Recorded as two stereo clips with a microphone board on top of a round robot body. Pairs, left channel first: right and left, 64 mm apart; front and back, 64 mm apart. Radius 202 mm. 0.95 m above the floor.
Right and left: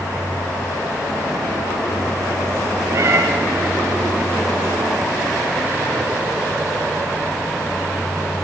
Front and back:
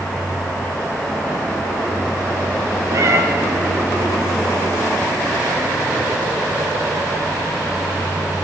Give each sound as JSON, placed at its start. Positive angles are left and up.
{"t": 2.9, "sound": "a cat meowing", "azimuth_deg": 135, "distance_m": 0.8}